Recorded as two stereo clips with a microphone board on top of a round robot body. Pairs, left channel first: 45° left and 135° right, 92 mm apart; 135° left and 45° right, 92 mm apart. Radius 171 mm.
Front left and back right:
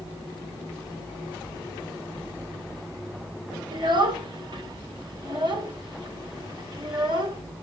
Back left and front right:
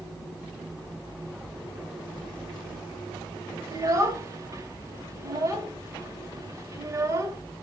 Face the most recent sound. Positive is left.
turn(degrees=-100)